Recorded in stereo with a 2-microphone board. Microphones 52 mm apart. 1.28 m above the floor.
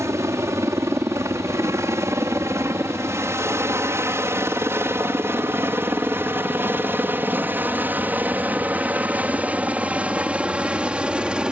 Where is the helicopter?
65° right (ahead or behind); by 11.5 s 20° right (ahead or behind).